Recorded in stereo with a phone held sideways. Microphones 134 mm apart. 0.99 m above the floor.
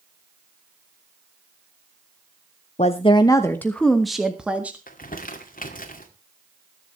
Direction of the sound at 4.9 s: 80° left.